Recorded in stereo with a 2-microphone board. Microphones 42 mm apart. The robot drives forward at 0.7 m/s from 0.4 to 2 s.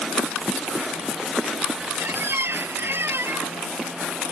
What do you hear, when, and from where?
2.0 s a squeak: 70° right (ahead or behind)